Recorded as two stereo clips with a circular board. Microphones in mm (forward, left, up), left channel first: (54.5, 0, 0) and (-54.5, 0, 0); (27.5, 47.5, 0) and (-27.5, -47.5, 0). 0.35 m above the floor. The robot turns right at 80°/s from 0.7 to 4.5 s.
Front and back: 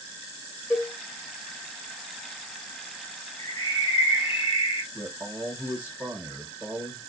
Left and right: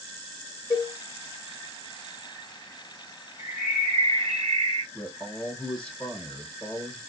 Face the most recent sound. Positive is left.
turn(degrees=125)